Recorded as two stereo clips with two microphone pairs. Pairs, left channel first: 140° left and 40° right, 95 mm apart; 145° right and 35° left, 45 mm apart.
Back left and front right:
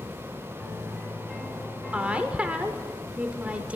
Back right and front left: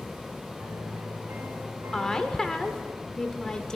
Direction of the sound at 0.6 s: 50° left.